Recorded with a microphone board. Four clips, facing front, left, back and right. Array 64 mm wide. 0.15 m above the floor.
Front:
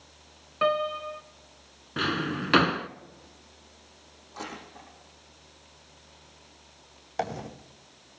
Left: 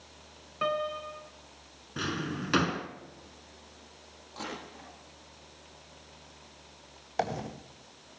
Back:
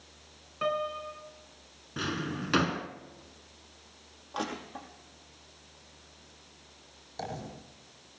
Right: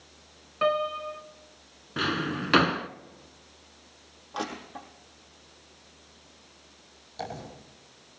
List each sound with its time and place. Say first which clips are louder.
0.6 s a piano: right 5 dB, front 5 dB; 25° right, 1.2 m
2.0 s a drawer: right 5 dB, front 5 dB; 35° right, 0.8 m
4.3 s crushing: right 6 dB, back 4 dB; 145° right, 5 m
7.2 s a dropped coin: left 5 dB, front 7 dB; 40° left, 3.5 m